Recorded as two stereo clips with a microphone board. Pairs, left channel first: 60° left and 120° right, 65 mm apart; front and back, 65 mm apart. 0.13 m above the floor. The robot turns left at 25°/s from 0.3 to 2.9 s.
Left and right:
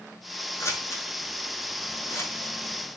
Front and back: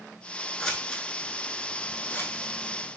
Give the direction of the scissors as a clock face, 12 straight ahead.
9 o'clock.